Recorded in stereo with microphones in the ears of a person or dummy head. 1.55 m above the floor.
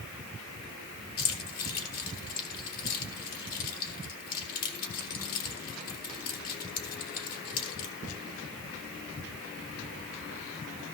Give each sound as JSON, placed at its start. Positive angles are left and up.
{"t": 1.2, "sound": "keys jangling", "side_deg": 50, "distance_m": 3.0}